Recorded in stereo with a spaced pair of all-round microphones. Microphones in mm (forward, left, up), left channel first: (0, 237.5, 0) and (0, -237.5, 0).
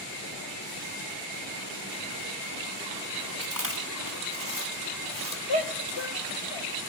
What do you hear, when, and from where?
3.4 s chewing: 40° right (ahead or behind), 2.5 m
5.5 s a shout: 60° left (ahead or behind), 1.4 m